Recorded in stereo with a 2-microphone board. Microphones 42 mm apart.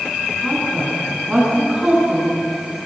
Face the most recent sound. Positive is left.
turn(degrees=-25)  # may be behind; listen again after turning